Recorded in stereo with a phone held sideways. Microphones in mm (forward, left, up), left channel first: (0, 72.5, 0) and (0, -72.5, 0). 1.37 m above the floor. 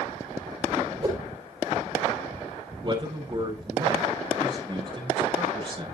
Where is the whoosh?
35° right (ahead or behind), 3.5 m.